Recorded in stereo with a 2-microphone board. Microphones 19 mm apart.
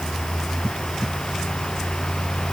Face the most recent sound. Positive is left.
No sound to turn to.